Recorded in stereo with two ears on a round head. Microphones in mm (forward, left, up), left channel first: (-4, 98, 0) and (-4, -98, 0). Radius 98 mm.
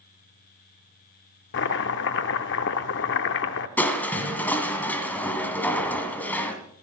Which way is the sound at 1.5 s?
55° left (ahead or behind).